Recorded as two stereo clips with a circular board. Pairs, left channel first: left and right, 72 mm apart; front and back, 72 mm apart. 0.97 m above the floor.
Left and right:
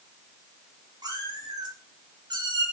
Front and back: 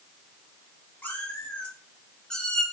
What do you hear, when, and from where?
1.0 s a cat meowing: 70° right, 7 m; by 2.6 s 85° right, 5.5 m